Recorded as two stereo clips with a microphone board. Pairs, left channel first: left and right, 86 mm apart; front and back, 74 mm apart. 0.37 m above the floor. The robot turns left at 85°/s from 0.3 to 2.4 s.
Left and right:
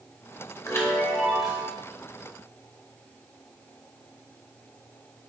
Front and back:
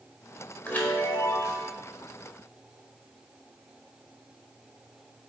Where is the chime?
60° left, 1.2 m; by 1.7 s 30° right, 1.2 m.